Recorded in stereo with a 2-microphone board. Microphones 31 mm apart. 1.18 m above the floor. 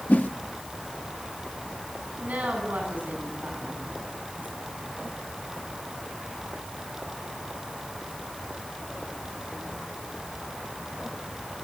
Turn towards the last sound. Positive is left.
turn(degrees=-65)  # may be behind; listen again after turning